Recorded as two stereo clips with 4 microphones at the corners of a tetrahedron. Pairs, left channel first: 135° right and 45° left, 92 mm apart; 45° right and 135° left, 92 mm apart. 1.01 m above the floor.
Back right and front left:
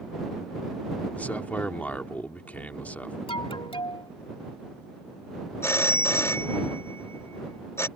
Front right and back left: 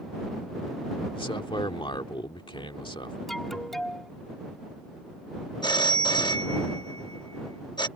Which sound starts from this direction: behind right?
An alarm, at 3.3 s.